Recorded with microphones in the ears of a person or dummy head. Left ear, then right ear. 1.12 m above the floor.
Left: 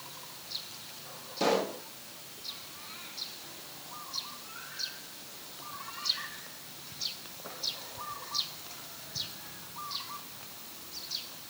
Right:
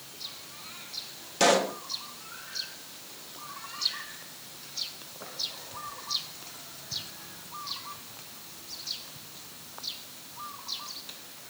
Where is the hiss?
No hiss in this recording.